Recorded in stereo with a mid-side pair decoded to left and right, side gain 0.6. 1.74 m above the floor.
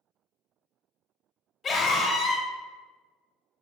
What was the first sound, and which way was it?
A scream, 30° left.